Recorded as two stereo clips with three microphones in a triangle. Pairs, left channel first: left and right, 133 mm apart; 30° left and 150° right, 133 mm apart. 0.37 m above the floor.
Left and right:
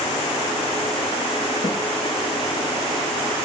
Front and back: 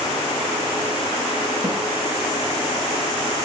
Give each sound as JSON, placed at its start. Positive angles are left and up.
{"t": 1.6, "sound": "a snare drum", "azimuth_deg": 140, "distance_m": 6.5}